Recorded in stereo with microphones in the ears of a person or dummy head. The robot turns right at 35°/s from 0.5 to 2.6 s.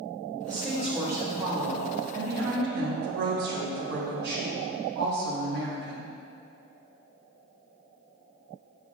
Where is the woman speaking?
170° left, 0.9 m; by 6.1 s 115° right, 0.9 m.